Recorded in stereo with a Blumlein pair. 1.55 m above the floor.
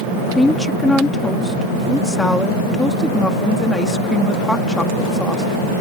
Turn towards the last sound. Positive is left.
turn(degrees=5)